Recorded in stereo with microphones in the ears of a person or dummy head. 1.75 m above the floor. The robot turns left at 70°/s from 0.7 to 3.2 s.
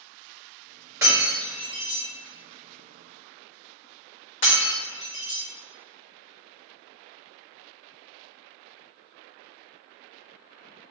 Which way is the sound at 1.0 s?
10° right (ahead or behind).